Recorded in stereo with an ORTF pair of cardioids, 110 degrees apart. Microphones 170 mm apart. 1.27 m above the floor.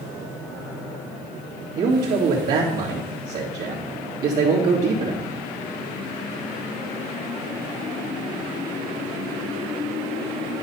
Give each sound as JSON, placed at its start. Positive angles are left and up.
{"t": 1.8, "sound": "a man speaking", "azimuth_deg": -60, "distance_m": 2.5}